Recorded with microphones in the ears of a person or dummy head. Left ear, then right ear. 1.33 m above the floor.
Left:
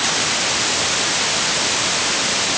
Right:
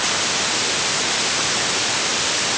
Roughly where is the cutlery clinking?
I don't hear cutlery clinking.